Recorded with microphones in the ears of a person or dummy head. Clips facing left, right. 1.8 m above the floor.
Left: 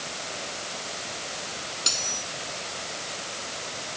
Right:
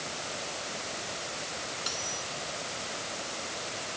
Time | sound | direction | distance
1.9 | cutlery clinking | 35° left (ahead or behind) | ?